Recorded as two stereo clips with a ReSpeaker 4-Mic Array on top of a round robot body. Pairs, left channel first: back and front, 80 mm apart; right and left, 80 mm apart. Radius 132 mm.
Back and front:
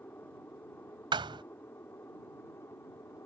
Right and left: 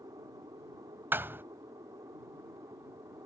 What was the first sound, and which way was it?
An aircraft, 115° left.